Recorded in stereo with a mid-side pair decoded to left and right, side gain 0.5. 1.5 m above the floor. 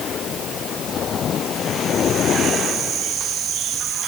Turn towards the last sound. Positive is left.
No sound to turn to.